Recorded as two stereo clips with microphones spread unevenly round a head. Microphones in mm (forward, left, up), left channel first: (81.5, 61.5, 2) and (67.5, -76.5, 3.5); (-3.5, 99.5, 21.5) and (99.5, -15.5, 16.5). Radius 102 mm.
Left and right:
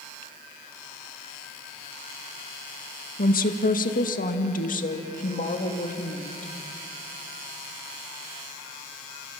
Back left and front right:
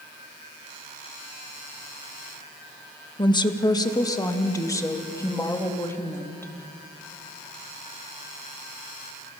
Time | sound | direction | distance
3.2 | a woman speaking | 70° left | 1.6 m